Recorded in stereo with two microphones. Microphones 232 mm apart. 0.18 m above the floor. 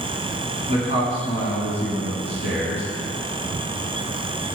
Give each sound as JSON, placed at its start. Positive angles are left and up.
{"t": 0.7, "sound": "a man speaking", "side_deg": -25, "distance_m": 1.8}